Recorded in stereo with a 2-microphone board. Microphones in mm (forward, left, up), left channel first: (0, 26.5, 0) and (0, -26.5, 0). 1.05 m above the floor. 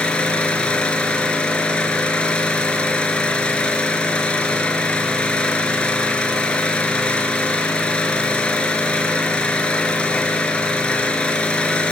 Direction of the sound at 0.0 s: 20° left (ahead or behind).